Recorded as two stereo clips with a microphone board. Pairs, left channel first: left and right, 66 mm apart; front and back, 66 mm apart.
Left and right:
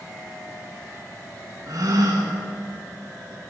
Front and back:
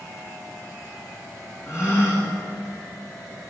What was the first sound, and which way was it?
A gasp, 50° right.